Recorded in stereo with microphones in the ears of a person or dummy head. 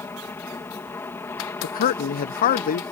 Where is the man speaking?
45° left (ahead or behind).